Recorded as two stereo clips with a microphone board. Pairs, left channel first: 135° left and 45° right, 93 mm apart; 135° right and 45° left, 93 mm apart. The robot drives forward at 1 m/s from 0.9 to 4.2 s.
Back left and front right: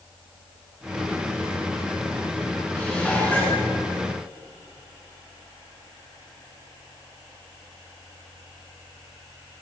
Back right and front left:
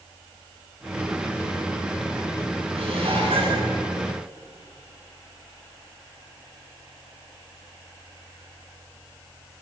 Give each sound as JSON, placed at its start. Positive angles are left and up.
{"t": 2.8, "sound": "dishes clattering", "azimuth_deg": 55, "distance_m": 9.0}